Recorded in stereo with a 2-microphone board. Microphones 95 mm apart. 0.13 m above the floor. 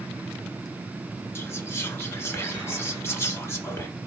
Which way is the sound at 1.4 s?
25° left (ahead or behind).